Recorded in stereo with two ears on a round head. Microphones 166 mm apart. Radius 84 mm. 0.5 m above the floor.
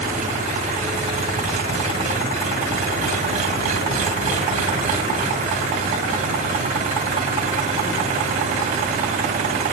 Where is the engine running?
40° right (ahead or behind), 2 m.